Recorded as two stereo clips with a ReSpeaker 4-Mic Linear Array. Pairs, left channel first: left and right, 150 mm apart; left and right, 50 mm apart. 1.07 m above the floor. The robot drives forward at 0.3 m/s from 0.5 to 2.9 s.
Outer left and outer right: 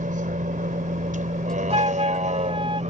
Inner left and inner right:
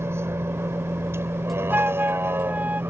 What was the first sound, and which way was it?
A vehicle, 65° right (ahead or behind).